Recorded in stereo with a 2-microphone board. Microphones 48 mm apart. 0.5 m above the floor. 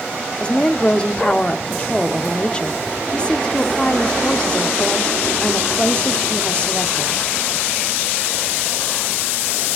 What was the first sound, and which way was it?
A woman speaking, 20° left (ahead or behind).